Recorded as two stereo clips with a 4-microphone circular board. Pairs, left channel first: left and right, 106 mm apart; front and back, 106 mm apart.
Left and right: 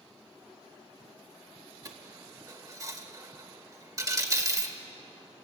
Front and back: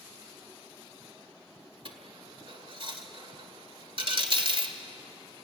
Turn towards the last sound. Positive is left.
turn(degrees=-145)